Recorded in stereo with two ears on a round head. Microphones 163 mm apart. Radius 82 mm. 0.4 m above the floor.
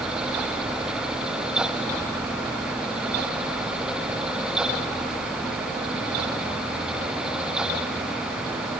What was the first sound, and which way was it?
Only background noise.